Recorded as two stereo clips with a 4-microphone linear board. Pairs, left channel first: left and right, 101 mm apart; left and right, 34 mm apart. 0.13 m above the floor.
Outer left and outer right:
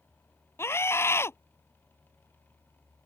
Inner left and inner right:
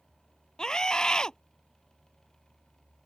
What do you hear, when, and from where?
0.6 s a scream: 25° left (ahead or behind)